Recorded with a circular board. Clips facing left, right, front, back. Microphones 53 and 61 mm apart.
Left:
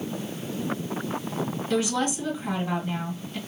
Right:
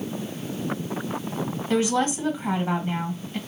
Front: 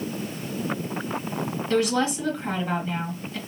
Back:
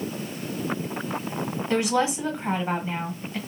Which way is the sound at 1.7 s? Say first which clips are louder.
Right 4 dB, even; 120° right.